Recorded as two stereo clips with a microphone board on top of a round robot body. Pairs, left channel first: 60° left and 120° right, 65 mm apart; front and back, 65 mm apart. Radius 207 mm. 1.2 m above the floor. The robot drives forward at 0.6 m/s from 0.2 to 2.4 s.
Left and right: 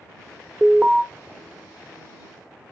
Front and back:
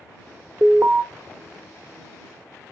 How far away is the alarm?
About 1.0 m.